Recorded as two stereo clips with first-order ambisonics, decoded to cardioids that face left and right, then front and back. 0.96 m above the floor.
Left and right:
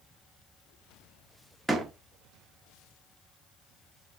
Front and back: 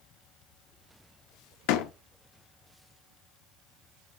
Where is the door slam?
10° right, 1.2 m.